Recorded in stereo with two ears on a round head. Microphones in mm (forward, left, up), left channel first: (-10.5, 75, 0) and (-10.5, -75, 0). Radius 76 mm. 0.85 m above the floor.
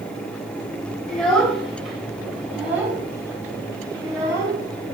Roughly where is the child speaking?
Centre.